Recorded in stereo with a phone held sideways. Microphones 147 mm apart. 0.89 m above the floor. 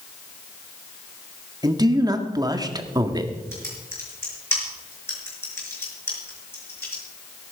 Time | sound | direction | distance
1.6 | a man speaking | 25° right (ahead or behind) | 1.6 m
3.5 | typing on a keyboard | 15° left (ahead or behind) | 5.5 m